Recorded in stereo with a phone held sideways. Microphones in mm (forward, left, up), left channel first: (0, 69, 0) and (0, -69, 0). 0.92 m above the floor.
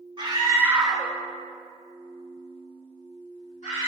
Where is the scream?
35° right (ahead or behind), 1.2 m; by 3.9 s 65° left (ahead or behind), 3 m.